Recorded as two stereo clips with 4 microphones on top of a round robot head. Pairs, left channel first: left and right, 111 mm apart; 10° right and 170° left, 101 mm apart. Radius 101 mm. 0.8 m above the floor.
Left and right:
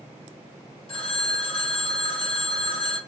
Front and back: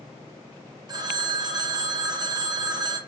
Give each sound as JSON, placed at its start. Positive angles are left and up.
{"t": 0.9, "sound": "a phone ringing", "azimuth_deg": 125, "distance_m": 0.7}